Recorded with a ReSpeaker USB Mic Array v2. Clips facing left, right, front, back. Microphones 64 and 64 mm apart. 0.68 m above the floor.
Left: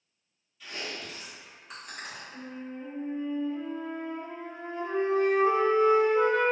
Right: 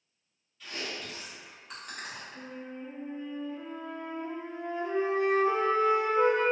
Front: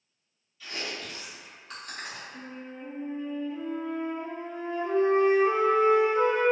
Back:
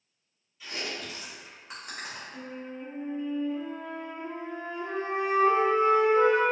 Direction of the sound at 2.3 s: 90° left.